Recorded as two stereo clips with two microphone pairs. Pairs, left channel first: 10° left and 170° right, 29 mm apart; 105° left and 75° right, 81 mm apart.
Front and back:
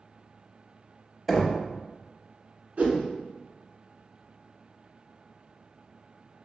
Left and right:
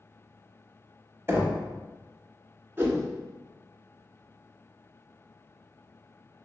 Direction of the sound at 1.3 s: 75° right.